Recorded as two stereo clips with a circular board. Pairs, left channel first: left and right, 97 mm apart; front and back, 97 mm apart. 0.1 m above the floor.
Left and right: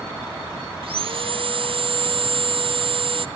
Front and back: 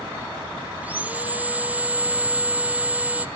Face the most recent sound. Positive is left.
turn(degrees=-105)